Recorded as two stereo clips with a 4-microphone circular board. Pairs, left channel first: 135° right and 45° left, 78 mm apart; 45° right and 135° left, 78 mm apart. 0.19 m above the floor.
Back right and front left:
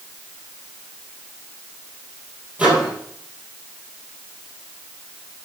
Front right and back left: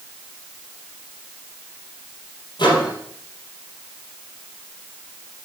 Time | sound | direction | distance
2.6 | a microwave | 30° right | 4.5 m